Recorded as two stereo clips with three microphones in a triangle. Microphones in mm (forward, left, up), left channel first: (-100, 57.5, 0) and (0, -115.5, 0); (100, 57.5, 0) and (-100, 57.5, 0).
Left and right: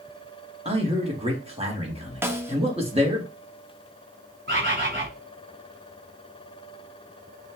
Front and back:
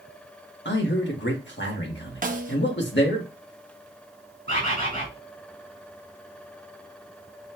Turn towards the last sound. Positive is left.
turn(degrees=-45)